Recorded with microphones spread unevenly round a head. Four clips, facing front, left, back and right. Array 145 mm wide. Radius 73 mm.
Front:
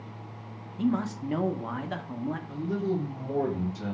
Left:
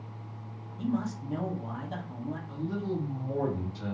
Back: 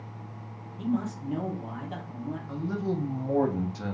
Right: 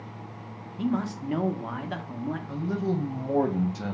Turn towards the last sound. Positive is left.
turn(degrees=-115)